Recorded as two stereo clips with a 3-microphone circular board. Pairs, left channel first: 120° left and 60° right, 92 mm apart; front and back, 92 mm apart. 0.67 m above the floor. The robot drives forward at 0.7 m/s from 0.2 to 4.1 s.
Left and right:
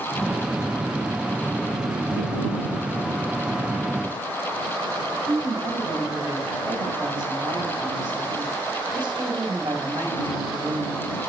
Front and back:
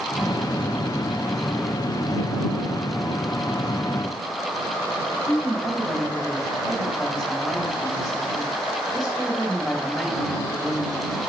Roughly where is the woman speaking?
Right.